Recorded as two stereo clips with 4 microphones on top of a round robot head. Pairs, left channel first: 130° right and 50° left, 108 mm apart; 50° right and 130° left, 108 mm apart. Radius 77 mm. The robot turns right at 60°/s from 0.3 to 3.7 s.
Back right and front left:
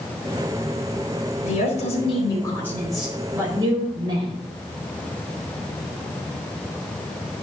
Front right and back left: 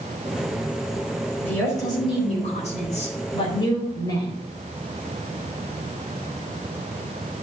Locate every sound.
1.4 s a woman speaking: 130° right, 4 m; by 4.4 s 5° left, 4 m